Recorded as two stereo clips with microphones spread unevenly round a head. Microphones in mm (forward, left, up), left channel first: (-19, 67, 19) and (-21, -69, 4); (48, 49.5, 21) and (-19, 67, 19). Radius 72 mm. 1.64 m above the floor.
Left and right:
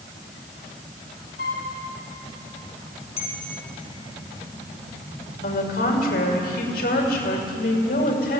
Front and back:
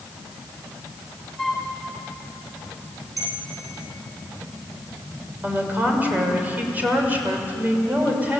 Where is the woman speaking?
100° left, 6 m.